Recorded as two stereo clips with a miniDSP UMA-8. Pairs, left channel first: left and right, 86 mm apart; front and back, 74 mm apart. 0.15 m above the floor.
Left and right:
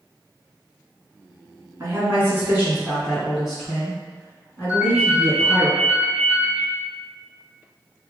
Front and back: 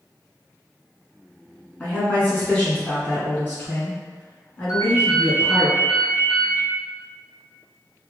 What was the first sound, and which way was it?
A woman speaking, 65° right.